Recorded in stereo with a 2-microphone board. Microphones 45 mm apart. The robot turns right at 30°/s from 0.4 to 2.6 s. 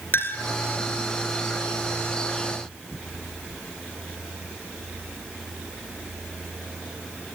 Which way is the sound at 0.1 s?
55° left (ahead or behind).